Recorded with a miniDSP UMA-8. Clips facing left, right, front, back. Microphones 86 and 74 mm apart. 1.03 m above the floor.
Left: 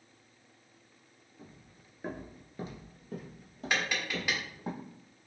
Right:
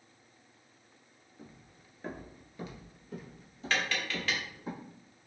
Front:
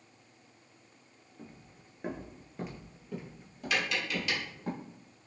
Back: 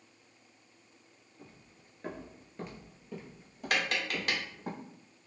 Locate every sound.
1.4 s footsteps: 20° right, 1.1 m; by 4.7 s 105° left, 2.5 m
3.7 s tapping: 160° left, 1.0 m